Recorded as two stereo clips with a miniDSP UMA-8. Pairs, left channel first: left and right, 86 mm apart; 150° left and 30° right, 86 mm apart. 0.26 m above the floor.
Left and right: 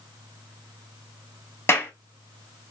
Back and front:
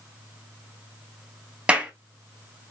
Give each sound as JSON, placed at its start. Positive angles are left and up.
{"t": 1.7, "sound": "a clap", "azimuth_deg": 40, "distance_m": 1.5}